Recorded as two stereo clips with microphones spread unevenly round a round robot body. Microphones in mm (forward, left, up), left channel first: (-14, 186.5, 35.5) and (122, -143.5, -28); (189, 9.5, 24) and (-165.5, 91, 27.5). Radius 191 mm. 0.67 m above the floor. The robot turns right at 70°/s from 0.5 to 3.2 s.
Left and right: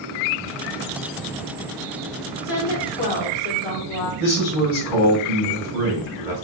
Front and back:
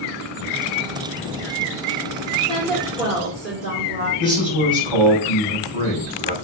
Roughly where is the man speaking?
Left.